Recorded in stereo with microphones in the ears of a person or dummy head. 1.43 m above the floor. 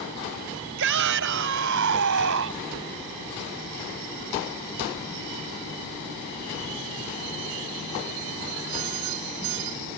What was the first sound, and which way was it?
A shout, 65° right (ahead or behind).